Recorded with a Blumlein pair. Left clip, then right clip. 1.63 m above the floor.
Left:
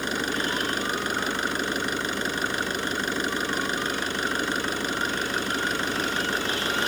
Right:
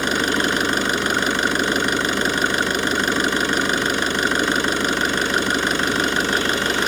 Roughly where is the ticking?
I don't hear ticking.